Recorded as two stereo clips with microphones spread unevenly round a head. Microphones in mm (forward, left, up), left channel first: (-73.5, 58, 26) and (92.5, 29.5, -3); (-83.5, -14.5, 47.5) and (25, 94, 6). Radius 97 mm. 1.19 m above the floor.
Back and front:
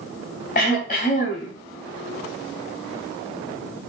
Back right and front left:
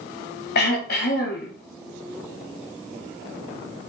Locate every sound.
0.6 s throat clearing: 140° right, 3.5 m